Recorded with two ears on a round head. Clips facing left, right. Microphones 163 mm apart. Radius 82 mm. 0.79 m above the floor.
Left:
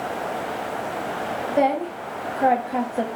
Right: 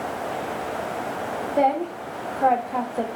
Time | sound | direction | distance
1.5 | a woman speaking | 5° left (ahead or behind) | 0.9 m